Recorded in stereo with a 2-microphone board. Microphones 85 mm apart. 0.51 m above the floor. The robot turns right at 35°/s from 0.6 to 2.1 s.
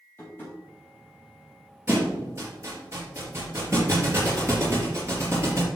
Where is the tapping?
25° left (ahead or behind), 4 m.